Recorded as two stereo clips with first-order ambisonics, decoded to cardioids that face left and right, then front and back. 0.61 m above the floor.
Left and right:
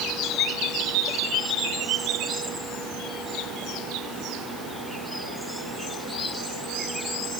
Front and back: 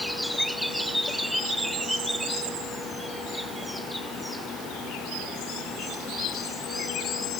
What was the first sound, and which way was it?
Only background noise.